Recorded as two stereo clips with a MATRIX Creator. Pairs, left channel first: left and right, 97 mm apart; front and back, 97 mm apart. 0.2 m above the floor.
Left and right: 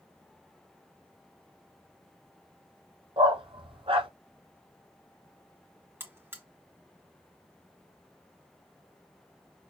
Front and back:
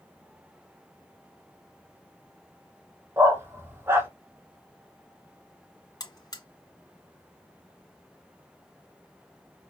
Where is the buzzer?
30° right, 1.8 m.